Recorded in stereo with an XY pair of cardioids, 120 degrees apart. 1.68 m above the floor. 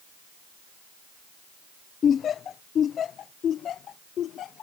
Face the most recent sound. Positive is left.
turn(degrees=55)